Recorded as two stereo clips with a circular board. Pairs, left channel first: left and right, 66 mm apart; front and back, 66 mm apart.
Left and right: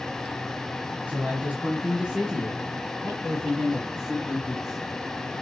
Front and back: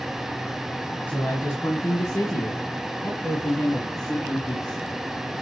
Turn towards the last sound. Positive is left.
turn(degrees=-5)